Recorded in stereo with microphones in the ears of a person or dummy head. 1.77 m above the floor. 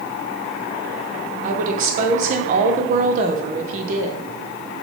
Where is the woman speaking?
45° right (ahead or behind), 0.6 m.